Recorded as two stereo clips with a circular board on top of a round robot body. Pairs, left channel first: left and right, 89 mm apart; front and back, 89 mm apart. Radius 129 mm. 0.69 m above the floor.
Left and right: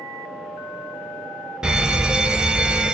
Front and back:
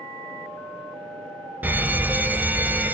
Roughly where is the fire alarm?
Behind right.